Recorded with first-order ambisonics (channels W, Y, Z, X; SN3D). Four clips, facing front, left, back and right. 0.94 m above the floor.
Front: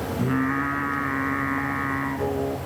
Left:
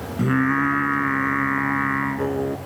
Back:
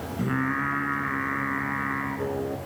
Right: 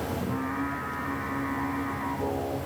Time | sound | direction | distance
0.2 | singing | 90° left | 2.5 m